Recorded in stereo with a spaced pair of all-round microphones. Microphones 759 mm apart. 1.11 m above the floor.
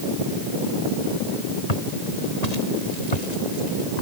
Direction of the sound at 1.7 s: 55° left (ahead or behind).